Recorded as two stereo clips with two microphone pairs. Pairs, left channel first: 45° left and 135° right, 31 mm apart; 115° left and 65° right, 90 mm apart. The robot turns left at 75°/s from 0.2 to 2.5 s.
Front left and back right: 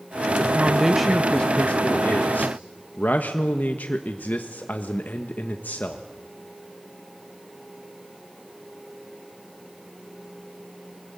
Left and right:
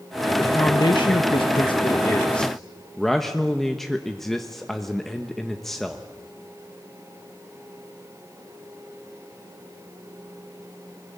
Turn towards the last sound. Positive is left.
turn(degrees=25)